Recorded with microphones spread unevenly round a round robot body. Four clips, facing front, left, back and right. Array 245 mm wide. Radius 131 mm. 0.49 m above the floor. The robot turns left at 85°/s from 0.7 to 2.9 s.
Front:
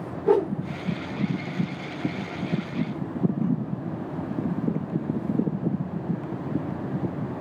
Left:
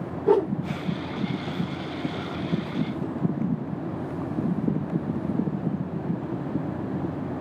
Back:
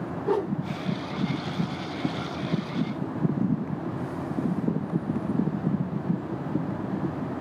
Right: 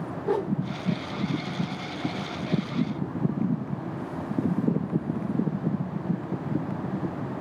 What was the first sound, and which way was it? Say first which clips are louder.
A whoosh: left 6 dB, front 5 dB; 50° left.